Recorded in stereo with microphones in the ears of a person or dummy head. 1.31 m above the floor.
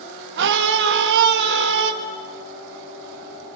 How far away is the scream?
About 1.9 m.